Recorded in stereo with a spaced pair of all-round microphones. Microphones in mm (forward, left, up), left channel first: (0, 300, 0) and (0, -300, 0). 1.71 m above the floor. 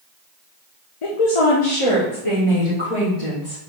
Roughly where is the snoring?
I don't hear snoring.